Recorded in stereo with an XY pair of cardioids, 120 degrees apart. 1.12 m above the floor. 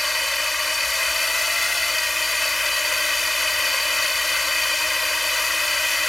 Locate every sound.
0.0 s a drone: 10° left